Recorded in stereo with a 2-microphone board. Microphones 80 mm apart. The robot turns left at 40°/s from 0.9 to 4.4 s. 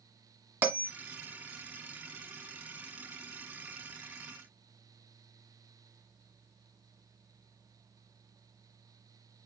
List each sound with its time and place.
0.6 s a bell: 20° right (ahead or behind), 1.5 m